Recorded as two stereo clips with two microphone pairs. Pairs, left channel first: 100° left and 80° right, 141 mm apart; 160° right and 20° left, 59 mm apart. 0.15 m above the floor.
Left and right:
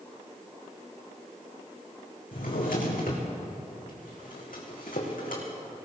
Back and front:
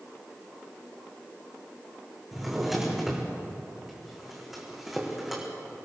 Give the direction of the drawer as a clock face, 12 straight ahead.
8 o'clock.